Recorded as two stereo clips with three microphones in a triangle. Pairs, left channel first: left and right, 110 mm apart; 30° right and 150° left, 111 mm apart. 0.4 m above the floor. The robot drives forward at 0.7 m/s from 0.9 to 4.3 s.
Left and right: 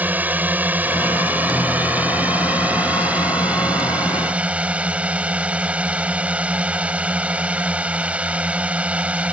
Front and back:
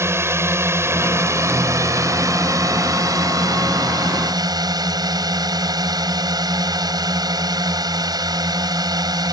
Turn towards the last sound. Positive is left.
turn(degrees=-165)